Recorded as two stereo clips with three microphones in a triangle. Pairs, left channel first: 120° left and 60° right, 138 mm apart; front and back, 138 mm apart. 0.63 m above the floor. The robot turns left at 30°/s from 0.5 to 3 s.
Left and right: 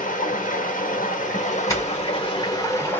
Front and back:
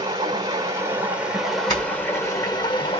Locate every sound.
0.0 s running water: 120° left, 1.2 m; by 3.0 s 45° left, 1.2 m
1.7 s a doorbell: 55° left, 3 m; by 2.9 s 20° left, 3 m